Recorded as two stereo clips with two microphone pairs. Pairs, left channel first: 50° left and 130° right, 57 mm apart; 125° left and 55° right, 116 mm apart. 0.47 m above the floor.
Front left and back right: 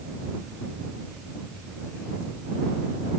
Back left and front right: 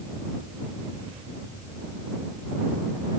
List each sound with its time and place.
Only background noise.